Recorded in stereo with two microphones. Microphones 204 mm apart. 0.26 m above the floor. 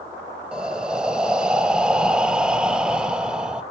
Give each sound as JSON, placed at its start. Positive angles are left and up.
{"t": 0.5, "sound": "breathing", "side_deg": -5, "distance_m": 0.6}